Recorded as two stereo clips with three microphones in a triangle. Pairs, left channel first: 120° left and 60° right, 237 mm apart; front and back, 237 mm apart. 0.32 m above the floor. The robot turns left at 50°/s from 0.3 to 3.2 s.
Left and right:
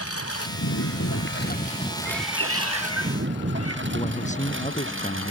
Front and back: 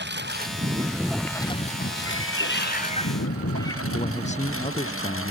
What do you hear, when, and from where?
0.0 s a lawn mower: 140° left; by 5.3 s 30° right
2.0 s a cat meowing: 15° right; by 3.8 s 75° right
3.9 s a man speaking: 60° left